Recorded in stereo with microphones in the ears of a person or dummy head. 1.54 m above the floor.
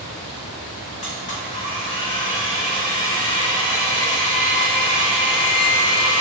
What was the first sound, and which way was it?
A blender, 30° left (ahead or behind).